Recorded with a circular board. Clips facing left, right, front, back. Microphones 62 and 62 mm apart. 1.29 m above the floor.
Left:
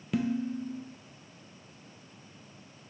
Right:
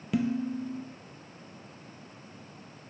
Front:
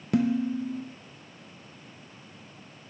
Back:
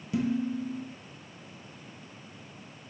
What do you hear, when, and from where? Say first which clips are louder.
0.1 s dishes clattering: right 1 dB, front 4 dB; 5° right, 0.5 m